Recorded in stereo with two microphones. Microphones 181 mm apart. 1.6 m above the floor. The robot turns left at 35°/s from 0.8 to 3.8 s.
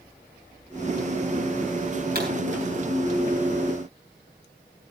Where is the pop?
60° right (ahead or behind), 6 m; by 2.3 s 65° right (ahead or behind), 6 m.